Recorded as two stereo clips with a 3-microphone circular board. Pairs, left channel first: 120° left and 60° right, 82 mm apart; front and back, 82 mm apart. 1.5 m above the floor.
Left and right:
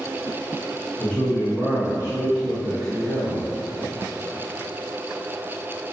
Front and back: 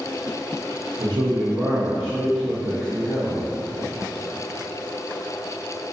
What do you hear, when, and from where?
1.0 s a man speaking: 175° right, 0.5 m; by 3.5 s 75° right, 1.1 m